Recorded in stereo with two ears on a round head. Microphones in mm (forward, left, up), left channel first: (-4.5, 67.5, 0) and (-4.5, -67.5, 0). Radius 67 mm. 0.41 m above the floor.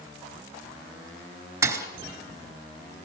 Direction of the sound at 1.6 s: 20° right (ahead or behind).